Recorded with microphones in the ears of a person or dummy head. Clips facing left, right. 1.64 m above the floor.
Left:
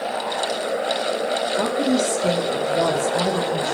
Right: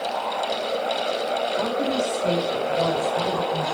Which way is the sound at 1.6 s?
45° left (ahead or behind).